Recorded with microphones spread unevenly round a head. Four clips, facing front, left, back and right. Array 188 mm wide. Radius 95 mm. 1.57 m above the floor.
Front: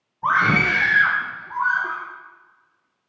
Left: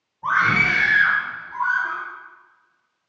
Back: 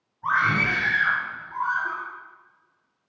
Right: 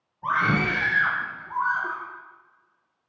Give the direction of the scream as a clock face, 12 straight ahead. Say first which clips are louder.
Left 3 dB, front 4 dB; 12 o'clock.